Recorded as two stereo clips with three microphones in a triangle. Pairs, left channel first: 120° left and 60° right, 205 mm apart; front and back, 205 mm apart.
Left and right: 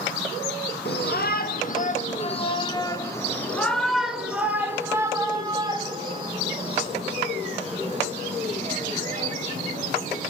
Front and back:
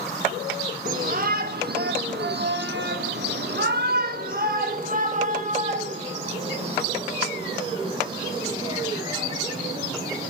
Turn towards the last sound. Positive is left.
turn(degrees=-110)